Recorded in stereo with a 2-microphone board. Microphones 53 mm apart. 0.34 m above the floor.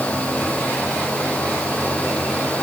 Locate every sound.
Only background noise.